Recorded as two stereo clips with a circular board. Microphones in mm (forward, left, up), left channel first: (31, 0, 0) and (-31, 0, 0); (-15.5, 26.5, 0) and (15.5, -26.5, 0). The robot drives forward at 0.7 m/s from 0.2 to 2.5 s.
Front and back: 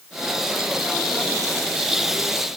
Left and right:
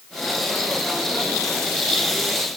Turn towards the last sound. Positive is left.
No sound to turn to.